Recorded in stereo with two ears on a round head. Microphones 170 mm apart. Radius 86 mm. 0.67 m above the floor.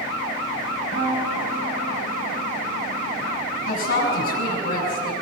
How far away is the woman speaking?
About 5.5 m.